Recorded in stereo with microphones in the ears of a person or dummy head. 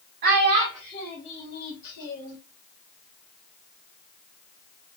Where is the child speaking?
40° right (ahead or behind), 0.7 m; by 2.4 s 60° left (ahead or behind), 1.3 m.